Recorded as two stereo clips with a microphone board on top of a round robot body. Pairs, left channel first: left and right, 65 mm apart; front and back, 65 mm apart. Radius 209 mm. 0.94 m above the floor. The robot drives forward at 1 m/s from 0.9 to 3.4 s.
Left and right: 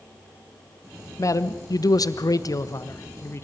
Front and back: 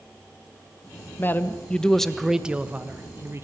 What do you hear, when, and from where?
1.2 s a man speaking: 55° left, 1.8 m; by 3.4 s 135° left, 2.0 m